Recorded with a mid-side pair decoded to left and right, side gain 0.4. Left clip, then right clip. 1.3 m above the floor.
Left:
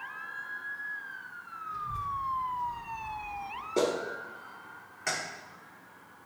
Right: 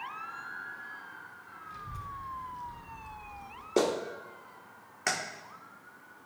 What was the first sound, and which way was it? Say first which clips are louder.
A child speaking: left 8 dB; 65° right.